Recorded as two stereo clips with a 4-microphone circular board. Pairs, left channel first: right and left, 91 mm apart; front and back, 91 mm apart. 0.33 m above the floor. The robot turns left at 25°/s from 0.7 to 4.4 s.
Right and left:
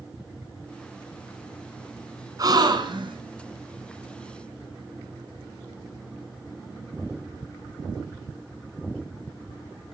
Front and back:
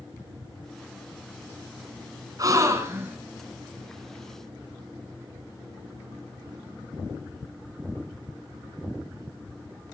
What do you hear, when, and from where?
2.4 s a gasp: 135° left, 2.5 m; by 3.2 s 115° left, 2.5 m